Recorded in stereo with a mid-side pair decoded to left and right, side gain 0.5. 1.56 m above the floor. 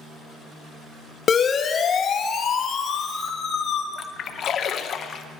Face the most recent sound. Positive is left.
turn(degrees=55)